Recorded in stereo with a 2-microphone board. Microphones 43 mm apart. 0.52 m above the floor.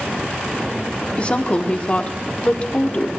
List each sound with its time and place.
1.2 s a woman speaking: 30° left (ahead or behind), 1.2 m